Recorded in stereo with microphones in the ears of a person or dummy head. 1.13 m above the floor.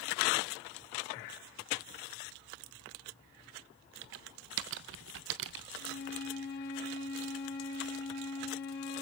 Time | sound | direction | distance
4.0 | typing on a keyboard | 65° right (ahead or behind) | 0.5 m
5.8 | a flute | 55° left (ahead or behind) | 2.5 m